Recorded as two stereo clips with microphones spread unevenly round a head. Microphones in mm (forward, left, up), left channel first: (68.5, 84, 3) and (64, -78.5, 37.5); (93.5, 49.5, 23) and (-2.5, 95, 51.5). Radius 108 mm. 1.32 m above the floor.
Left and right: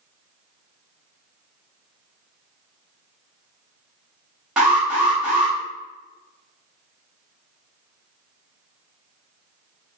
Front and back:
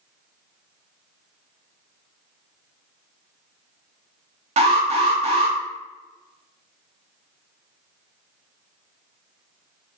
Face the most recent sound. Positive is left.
turn(degrees=175)